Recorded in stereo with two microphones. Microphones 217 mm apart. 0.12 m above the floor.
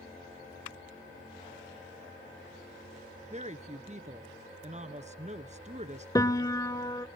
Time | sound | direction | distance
3.3 | a woman speaking | 35° right (ahead or behind) | 1.3 m
6.2 | a piano | 15° left (ahead or behind) | 0.5 m